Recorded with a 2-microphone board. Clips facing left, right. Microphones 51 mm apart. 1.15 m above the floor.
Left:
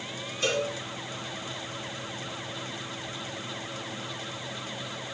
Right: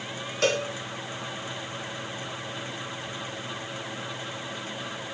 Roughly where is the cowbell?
Right.